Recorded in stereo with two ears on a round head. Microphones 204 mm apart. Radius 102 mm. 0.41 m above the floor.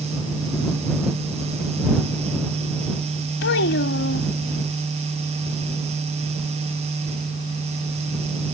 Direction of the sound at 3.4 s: 55° left (ahead or behind).